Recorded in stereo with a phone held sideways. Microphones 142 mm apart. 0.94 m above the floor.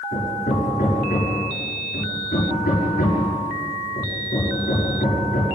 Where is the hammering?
85° left, 6.5 m.